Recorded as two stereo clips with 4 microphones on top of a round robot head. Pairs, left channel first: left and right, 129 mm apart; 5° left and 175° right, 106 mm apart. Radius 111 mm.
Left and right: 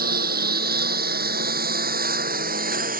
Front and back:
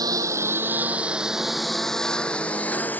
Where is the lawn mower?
110° right; by 3.0 s 75° right.